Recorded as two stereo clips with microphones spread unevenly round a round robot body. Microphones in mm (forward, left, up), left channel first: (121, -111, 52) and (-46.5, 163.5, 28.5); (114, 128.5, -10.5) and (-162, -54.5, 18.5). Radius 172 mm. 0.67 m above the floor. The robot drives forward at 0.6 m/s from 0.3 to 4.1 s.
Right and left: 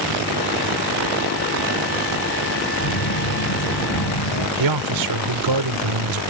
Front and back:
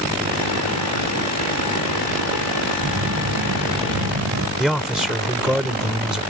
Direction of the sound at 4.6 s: 125° left.